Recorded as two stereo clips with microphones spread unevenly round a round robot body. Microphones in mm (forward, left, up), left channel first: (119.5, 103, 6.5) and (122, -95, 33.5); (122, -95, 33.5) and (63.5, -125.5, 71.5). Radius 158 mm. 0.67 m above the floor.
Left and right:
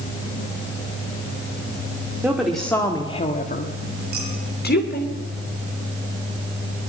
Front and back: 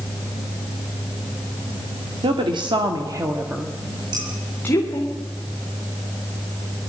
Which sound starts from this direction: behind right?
Dishes clattering, at 4.1 s.